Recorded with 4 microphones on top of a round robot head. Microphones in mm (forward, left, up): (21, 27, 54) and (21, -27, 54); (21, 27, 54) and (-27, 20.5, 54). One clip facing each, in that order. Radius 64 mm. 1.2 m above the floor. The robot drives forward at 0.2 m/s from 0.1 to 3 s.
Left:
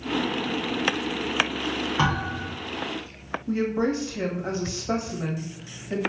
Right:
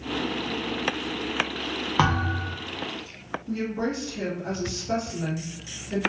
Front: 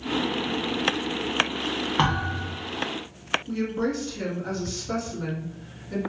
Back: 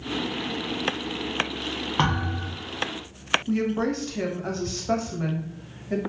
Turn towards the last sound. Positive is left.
turn(degrees=150)